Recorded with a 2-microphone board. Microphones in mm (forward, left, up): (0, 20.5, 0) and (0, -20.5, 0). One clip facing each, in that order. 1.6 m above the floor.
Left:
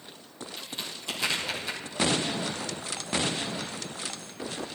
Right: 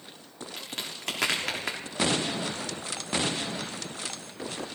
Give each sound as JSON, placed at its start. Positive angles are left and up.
{"t": 0.6, "sound": "a crack", "side_deg": -70, "distance_m": 3.5}